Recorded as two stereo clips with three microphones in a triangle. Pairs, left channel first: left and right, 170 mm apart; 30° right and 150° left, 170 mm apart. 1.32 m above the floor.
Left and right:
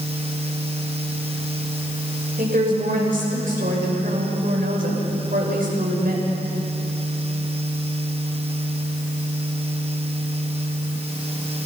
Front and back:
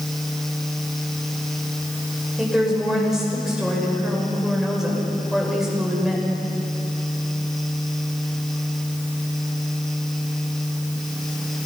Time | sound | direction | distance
2.4 | a woman speaking | 125° right | 6.5 m